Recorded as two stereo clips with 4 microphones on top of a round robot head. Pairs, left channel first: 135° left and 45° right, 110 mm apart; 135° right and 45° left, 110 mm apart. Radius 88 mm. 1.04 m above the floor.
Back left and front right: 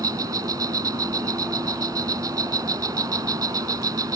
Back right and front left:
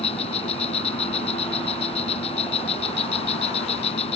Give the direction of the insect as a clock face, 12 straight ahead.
3 o'clock.